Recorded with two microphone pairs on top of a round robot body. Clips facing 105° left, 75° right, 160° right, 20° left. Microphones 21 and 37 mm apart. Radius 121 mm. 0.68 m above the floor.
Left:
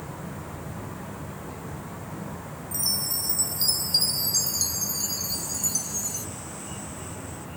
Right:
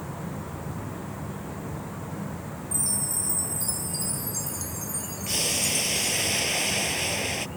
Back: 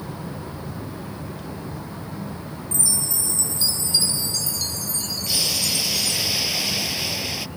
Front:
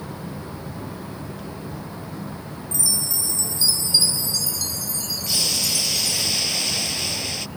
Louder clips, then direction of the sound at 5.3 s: Right 4 dB, even; 80° right.